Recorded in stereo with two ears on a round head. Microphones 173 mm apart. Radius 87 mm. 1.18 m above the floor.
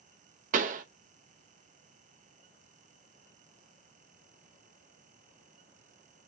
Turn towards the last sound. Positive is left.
turn(degrees=-40)  # may be behind; listen again after turning